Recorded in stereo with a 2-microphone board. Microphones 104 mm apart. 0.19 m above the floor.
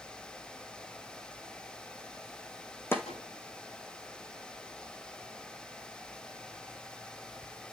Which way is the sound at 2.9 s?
20° left (ahead or behind).